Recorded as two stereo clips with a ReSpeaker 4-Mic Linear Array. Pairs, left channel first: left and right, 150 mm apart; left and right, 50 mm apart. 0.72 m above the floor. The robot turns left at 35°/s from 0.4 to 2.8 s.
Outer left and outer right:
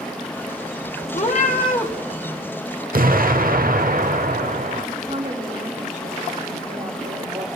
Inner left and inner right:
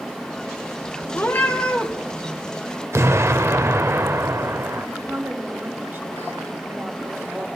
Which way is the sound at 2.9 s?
70° right (ahead or behind).